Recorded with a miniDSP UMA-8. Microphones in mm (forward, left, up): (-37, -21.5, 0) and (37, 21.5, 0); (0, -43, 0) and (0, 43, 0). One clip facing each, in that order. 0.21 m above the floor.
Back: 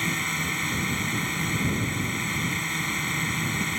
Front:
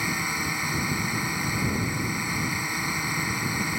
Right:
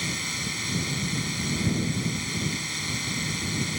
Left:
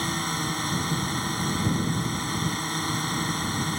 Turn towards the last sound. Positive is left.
turn(degrees=105)